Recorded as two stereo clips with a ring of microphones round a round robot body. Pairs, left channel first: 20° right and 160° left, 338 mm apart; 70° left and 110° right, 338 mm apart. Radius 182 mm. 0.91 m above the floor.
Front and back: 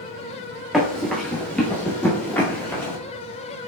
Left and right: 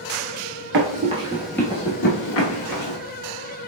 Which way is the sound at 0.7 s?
115° right.